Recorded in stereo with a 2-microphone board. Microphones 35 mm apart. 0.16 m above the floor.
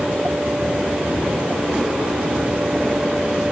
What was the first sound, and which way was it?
Only background noise.